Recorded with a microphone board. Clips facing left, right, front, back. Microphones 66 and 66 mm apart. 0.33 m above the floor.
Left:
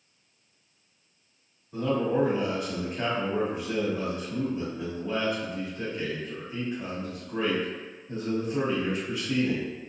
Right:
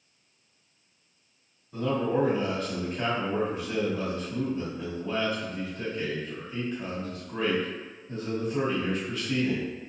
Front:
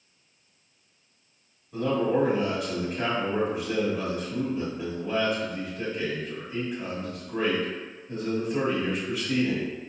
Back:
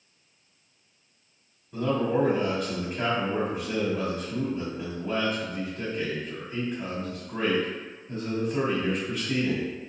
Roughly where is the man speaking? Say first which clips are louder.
Left 1 dB, front 1 dB; left.